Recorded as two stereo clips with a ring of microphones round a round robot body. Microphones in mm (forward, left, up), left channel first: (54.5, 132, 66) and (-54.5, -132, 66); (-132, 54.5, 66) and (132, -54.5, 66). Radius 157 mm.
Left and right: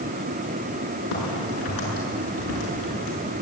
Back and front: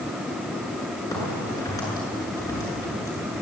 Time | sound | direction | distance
1.1 | a crack | 80° left | 7.5 m